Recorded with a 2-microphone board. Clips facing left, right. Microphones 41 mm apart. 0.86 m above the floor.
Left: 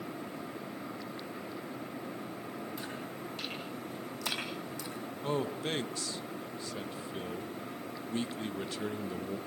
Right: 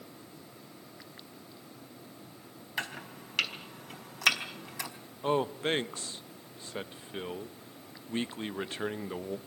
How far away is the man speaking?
About 1.1 m.